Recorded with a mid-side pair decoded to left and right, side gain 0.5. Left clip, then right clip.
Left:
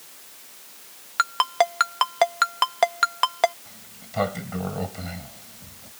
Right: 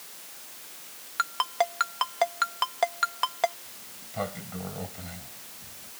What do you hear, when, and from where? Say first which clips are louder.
1.2 s a ringtone: left 6 dB; 45° left
3.6 s a sliding door: left 1 dB; 50° left